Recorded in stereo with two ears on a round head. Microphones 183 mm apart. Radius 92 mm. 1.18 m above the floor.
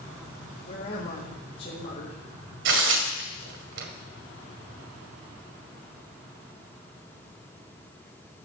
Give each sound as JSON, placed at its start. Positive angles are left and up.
{"t": 0.7, "sound": "a woman speaking", "side_deg": 40, "distance_m": 4.5}
{"t": 2.6, "sound": "tearing paper", "side_deg": -65, "distance_m": 2.0}